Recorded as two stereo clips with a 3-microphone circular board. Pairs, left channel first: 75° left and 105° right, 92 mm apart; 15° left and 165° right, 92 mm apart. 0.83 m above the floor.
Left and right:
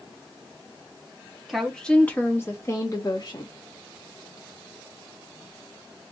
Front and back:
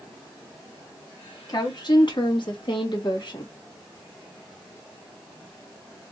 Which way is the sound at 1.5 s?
15° right.